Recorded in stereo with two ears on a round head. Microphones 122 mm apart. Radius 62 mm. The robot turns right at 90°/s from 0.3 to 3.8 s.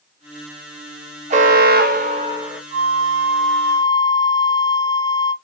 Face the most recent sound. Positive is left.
turn(degrees=35)